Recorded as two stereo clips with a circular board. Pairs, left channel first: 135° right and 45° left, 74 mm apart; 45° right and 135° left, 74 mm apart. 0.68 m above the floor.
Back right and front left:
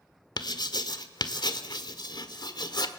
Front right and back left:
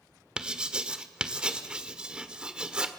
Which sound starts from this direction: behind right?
Writing, at 0.4 s.